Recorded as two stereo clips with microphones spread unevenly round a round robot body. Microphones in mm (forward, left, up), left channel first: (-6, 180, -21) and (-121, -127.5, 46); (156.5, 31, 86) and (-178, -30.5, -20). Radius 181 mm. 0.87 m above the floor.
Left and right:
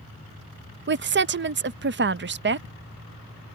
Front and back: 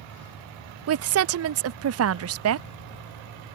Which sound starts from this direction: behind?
A woman speaking, at 0.9 s.